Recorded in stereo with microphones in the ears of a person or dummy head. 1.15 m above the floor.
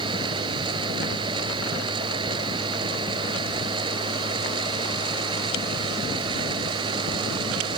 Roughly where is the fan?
Right.